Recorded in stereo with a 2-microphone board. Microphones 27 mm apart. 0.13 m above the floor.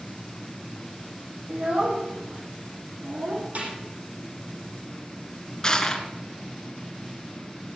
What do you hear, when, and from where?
1.5 s a child speaking: 55° right (ahead or behind), 4 m; by 3.5 s 60° right (ahead or behind), 5.5 m
3.5 s a snare drum: 60° right (ahead or behind), 6.5 m
5.6 s crushing: 20° left (ahead or behind), 2 m